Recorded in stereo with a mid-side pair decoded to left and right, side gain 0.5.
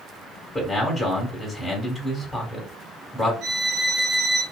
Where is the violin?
55° right, 1.1 m.